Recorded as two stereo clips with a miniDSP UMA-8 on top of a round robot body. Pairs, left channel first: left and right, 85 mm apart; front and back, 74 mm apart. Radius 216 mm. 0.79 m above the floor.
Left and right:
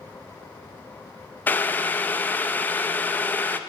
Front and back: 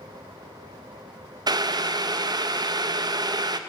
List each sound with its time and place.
1.5 s boiling: 160° left, 0.5 m